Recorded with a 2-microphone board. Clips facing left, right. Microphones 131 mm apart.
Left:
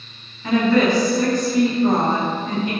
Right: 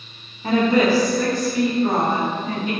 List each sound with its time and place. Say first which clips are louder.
0.4 s a woman speaking: even; 35° right (ahead or behind), 0.6 m; by 2.7 s 55° left (ahead or behind), 1.2 m